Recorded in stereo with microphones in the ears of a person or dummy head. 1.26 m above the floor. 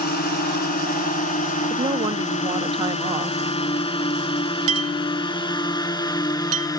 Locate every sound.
0.0 s a drone: 50° left (ahead or behind); by 6.8 s 20° left (ahead or behind)
1.7 s a woman speaking: 20° right (ahead or behind)
4.7 s a clink: 35° right (ahead or behind)